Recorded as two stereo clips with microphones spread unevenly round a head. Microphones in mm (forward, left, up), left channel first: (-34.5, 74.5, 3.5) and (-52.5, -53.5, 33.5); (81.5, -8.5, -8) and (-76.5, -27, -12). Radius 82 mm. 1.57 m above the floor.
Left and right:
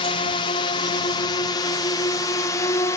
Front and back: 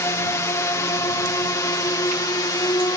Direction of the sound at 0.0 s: 75° left.